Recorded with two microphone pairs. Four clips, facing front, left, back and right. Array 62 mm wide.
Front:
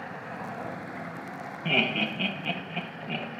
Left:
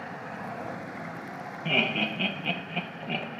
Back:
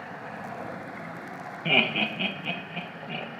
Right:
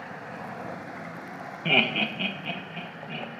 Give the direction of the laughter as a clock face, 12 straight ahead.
4 o'clock.